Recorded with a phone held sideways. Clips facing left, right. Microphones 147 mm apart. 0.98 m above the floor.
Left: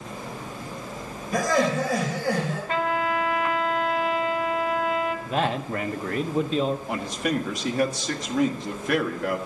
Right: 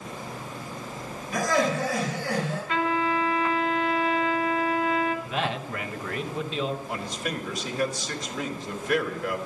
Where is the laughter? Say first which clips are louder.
Left 2 dB; 45° left (ahead or behind), 3.5 m.